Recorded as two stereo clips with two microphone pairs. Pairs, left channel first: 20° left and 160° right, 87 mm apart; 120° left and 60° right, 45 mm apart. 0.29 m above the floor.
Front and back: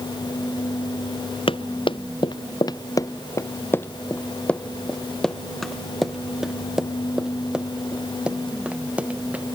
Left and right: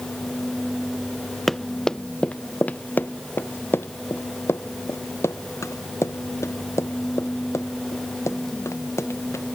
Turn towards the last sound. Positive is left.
turn(degrees=125)